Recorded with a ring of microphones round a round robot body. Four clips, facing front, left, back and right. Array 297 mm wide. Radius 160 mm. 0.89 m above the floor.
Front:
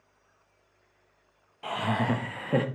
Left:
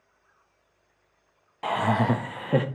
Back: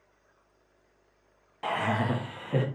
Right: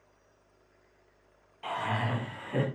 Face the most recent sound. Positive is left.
turn(degrees=65)